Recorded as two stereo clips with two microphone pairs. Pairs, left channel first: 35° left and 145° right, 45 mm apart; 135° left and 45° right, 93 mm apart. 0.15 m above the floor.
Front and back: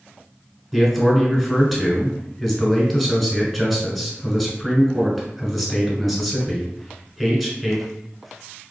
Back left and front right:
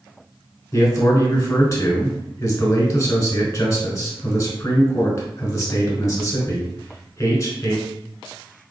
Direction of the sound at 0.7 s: 120° left.